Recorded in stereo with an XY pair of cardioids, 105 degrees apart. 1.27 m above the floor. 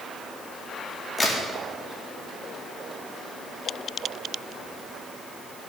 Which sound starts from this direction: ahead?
A crack, at 1.2 s.